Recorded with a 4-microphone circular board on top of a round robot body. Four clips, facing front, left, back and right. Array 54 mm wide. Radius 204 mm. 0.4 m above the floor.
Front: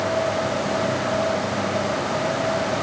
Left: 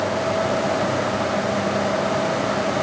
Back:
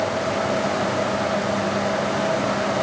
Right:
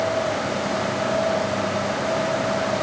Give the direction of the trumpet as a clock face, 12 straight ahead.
No trumpet in this recording.